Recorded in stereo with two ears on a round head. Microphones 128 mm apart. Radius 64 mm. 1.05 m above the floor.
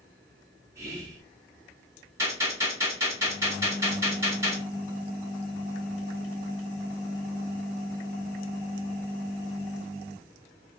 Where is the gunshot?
20° right (ahead or behind), 1.9 m.